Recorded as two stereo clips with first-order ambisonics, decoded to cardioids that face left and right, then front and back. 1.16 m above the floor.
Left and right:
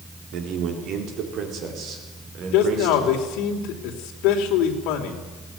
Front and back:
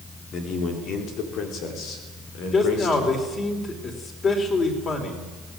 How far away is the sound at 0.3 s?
About 4 m.